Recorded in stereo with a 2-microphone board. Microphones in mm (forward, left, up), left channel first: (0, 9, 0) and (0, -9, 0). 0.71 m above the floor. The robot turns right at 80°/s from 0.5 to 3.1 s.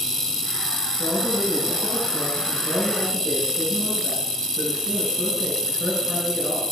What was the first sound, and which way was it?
A man speaking, 45° left.